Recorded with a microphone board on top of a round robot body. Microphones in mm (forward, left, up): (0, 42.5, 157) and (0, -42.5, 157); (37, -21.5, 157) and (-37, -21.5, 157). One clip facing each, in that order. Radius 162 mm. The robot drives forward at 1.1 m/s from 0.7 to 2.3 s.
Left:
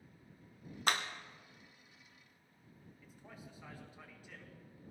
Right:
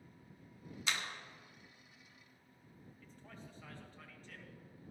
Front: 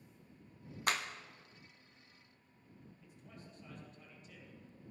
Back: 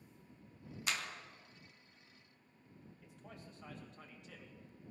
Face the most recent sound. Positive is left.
turn(degrees=170)